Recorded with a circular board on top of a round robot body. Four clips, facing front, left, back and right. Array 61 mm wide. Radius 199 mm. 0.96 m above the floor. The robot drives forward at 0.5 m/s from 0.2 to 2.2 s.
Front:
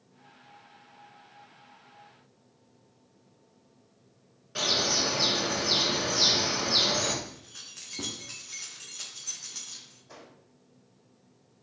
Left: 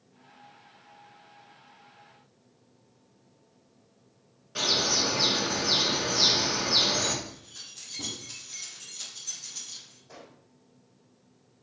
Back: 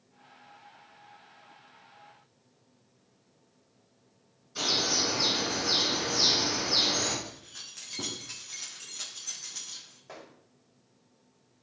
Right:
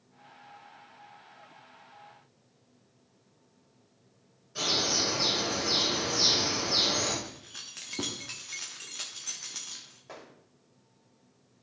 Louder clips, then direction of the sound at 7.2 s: Even, even; 90° right.